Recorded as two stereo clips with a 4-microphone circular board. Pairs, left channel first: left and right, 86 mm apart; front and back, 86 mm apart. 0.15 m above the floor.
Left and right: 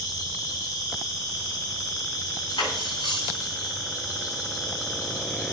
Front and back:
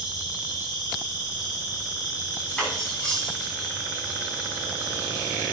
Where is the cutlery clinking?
75° left, 7.5 m.